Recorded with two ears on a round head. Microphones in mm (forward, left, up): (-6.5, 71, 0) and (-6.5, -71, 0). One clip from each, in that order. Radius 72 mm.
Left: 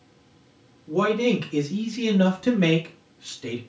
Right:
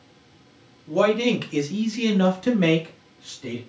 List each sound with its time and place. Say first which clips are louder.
0.9 s a man speaking: right 2 dB; 40° right (ahead or behind), 1.0 m; by 3.6 s 25° left (ahead or behind), 0.9 m